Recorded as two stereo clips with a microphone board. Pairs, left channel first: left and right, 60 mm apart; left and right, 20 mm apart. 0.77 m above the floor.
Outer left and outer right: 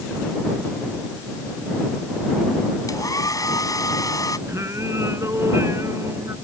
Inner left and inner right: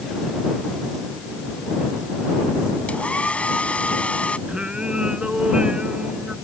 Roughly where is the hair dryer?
Left.